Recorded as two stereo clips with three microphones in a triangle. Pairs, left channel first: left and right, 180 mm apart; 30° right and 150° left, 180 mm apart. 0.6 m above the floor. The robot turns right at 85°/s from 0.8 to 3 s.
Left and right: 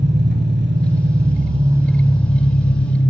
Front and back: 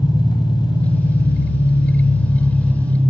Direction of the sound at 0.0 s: 95° right.